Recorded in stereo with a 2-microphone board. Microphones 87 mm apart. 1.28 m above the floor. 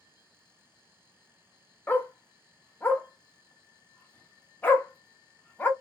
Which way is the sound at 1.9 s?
20° left (ahead or behind).